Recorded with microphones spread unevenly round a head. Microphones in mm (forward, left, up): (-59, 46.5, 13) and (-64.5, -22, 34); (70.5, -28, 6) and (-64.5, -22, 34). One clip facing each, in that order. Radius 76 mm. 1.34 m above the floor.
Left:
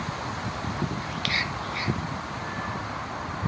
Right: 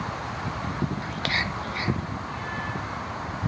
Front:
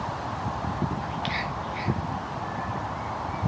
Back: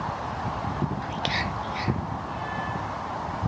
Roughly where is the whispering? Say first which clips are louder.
Right 1 dB, back 1 dB; behind right.